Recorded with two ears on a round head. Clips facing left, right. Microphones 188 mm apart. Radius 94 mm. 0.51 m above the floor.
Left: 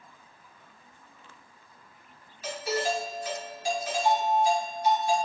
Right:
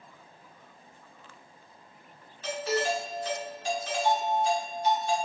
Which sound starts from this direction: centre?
A doorbell, at 2.4 s.